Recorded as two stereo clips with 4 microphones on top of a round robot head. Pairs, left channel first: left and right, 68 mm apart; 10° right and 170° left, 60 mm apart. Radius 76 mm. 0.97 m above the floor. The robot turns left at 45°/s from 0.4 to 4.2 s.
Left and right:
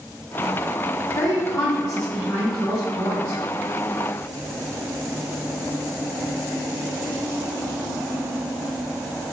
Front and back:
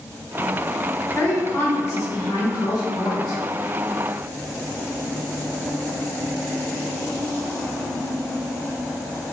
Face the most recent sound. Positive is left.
turn(degrees=-90)